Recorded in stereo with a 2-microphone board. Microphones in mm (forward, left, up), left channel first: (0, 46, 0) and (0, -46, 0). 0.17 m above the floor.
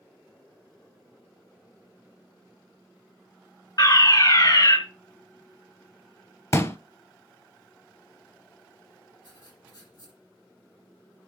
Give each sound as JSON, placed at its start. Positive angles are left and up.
{"t": 3.8, "sound": "a fire alarm", "side_deg": 45, "distance_m": 3.0}
{"t": 6.5, "sound": "a pop", "side_deg": 35, "distance_m": 0.7}
{"t": 9.2, "sound": "writing", "side_deg": 55, "distance_m": 5.5}